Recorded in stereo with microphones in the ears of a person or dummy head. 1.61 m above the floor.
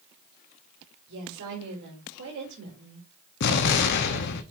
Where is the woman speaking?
70° right (ahead or behind), 2.5 m.